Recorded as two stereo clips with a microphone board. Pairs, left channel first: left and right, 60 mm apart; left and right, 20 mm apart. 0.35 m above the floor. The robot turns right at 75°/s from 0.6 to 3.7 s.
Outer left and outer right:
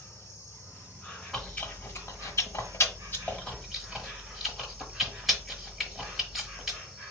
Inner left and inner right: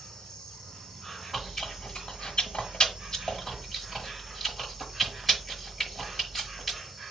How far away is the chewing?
About 1.2 m.